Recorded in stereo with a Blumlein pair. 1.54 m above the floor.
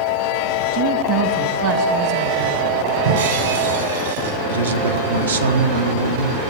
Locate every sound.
0.7 s a woman speaking: 45° right, 1.7 m
3.0 s breaking glass: 65° right, 6.5 m
4.5 s a man speaking: 70° right, 1.4 m